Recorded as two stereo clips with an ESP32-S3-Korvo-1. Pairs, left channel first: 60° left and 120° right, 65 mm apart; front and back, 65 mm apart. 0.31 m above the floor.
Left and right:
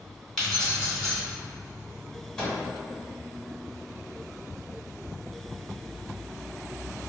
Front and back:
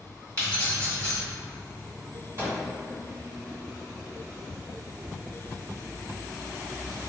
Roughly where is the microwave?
Behind left.